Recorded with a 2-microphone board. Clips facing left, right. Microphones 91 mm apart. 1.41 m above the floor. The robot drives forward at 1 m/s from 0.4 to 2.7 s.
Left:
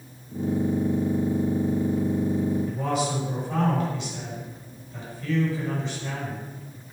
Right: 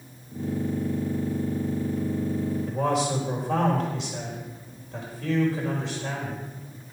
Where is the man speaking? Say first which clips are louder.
Right 2 dB; 85° right, 5 m.